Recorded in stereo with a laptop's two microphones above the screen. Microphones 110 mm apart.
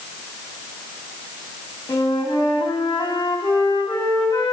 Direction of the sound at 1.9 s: 45° left (ahead or behind).